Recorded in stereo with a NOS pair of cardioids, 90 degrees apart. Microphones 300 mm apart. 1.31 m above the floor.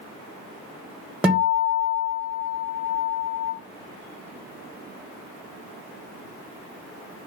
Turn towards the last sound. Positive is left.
turn(degrees=-5)